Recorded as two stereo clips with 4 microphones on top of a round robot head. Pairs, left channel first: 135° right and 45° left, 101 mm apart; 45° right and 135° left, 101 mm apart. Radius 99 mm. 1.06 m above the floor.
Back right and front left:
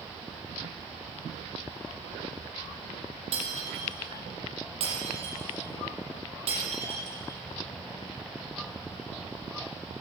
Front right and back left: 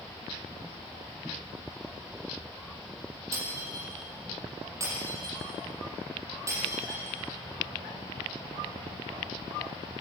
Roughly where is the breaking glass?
Left.